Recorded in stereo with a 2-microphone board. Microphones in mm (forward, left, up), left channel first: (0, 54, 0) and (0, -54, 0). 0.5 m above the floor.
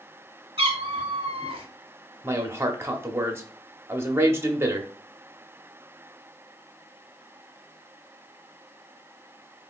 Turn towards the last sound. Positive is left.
turn(degrees=-25)  # may be behind; listen again after turning